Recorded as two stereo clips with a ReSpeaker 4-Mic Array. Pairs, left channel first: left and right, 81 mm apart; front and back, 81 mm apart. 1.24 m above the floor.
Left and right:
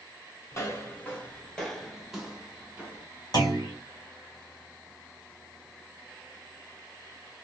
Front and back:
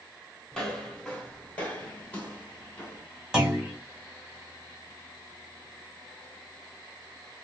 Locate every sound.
0.5 s footsteps: 80° left, 1.5 m; by 3.0 s 45° right, 1.5 m
3.3 s a clunk: 100° left, 1.6 m